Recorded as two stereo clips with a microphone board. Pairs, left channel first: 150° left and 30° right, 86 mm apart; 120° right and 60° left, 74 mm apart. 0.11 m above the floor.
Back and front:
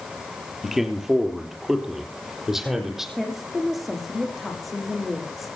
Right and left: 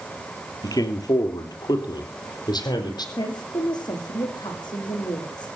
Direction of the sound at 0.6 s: 115° right.